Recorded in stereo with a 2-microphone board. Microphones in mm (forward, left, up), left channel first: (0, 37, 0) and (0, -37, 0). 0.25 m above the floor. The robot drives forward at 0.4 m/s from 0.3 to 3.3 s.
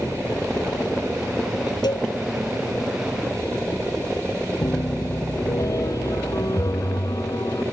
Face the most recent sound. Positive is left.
turn(degrees=50)  # may be behind; listen again after turning